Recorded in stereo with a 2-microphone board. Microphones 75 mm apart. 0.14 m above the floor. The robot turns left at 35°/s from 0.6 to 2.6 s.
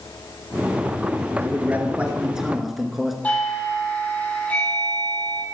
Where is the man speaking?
135° right, 1.5 m; by 3.1 s straight behind, 1.5 m.